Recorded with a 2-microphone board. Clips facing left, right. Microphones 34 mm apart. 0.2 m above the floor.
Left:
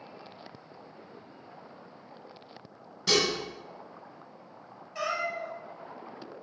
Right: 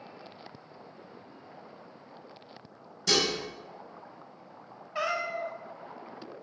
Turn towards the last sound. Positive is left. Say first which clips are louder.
# right 1 dB
turn(degrees=-25)  # may be behind; listen again after turning